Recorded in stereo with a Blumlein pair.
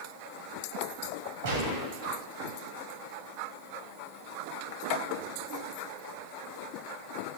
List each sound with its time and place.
1.4 s a gunshot: 50° right, 1.2 m